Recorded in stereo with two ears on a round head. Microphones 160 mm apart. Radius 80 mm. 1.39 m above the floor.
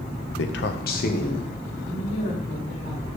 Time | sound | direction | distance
0.4 | a man speaking | 80° left | 0.7 m
1.9 | a woman speaking | 40° left (ahead or behind) | 3.5 m